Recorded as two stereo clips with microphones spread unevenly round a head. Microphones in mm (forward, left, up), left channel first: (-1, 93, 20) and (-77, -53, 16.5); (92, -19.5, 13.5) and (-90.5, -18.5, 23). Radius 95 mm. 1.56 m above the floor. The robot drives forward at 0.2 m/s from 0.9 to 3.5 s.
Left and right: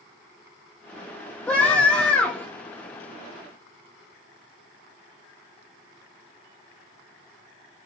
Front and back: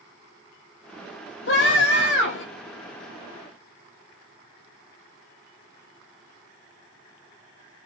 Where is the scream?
25° right, 4.5 m.